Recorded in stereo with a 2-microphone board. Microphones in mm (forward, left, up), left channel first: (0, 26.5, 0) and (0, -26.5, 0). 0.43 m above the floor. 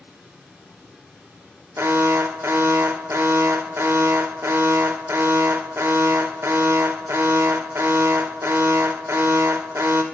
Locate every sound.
0.0 s running water: 15° right (ahead or behind), 2 m
1.8 s an alarm: 50° right (ahead or behind), 0.7 m